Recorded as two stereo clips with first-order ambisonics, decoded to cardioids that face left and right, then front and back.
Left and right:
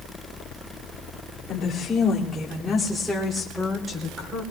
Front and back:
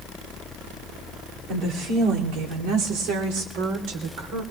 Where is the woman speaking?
155° left, 2.5 m; by 4.4 s 160° right, 3.5 m.